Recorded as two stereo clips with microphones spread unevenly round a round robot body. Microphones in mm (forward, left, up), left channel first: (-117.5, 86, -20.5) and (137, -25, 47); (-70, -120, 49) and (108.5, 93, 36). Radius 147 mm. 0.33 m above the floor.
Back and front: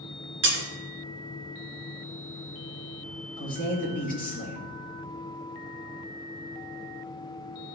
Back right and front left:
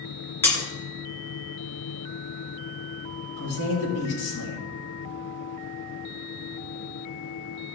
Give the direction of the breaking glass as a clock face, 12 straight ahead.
2 o'clock.